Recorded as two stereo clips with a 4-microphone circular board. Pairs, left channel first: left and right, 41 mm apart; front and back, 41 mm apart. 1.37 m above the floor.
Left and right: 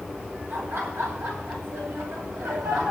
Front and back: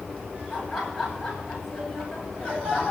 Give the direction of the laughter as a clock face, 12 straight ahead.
3 o'clock.